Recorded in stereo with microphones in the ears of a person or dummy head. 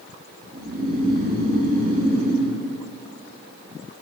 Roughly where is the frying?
No frying in this recording.